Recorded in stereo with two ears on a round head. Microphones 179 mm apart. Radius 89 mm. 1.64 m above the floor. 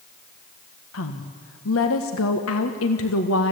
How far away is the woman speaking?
About 1.6 m.